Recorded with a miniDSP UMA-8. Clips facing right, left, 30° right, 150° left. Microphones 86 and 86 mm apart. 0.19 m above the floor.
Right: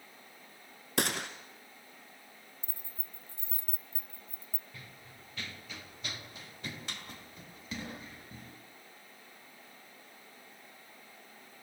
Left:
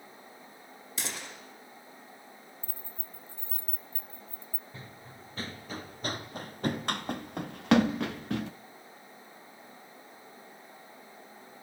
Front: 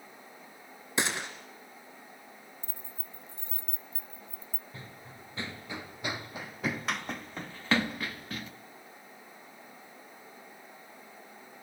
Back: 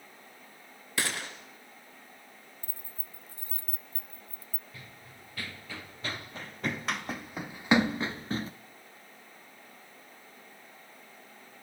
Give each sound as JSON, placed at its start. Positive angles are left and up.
{"t": 1.0, "sound": "a gunshot", "azimuth_deg": -100, "distance_m": 2.5}
{"t": 2.6, "sound": "keys jangling", "azimuth_deg": -55, "distance_m": 0.7}
{"t": 4.7, "sound": "running footsteps", "azimuth_deg": 30, "distance_m": 2.5}